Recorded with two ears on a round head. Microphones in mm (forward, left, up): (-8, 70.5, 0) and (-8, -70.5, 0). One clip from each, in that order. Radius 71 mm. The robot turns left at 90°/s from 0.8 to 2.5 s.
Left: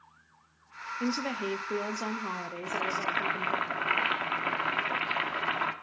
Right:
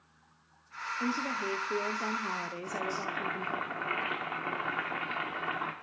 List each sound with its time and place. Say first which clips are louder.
1.0 s a woman speaking: left 1 dB; 135° left, 0.7 m; by 3.6 s straight ahead, 0.7 m
2.6 s boiling: left 3 dB; 60° left (ahead or behind), 0.9 m